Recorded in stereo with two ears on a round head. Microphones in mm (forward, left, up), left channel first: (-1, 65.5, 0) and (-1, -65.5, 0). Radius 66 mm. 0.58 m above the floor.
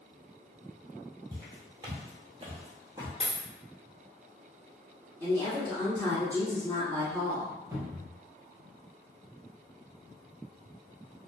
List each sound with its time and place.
1.3 s footsteps: 20° right (ahead or behind), 1.0 m; by 3.1 s 25° right (ahead or behind), 0.9 m
3.2 s a dropped coin: 5° left (ahead or behind), 1.3 m
5.2 s a woman speaking: 5° left (ahead or behind), 1.2 m
7.7 s a cupboard door: 20° right (ahead or behind), 0.7 m